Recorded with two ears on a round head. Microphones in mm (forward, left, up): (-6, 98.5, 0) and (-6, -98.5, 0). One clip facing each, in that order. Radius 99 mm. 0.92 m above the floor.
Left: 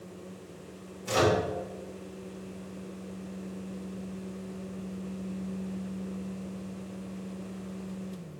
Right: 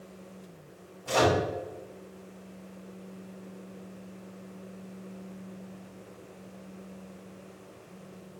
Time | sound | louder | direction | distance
1.1 | a microwave | even | 25° left (ahead or behind) | 2 m